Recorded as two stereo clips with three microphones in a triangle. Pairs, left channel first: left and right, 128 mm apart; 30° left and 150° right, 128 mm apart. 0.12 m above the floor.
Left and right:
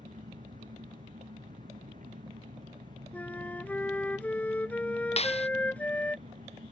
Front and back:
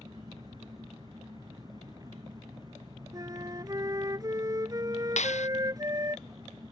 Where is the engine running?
90° right.